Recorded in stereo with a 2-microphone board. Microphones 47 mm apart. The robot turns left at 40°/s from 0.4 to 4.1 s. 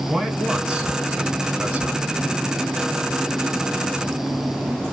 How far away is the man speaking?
About 1.8 m.